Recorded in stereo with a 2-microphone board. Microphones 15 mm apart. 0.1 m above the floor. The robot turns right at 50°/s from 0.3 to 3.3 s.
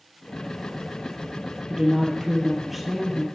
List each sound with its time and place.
1.7 s a woman speaking: 55° right, 2.0 m; by 3.2 s 20° left, 2.0 m